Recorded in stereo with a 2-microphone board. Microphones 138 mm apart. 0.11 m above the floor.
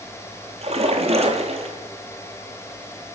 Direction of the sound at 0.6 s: 50° right (ahead or behind).